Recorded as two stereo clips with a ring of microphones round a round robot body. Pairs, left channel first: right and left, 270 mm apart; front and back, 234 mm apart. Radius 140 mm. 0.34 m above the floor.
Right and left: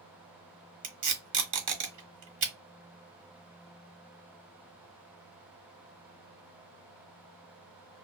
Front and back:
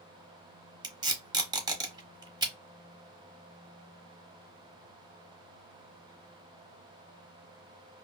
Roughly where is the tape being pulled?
Left.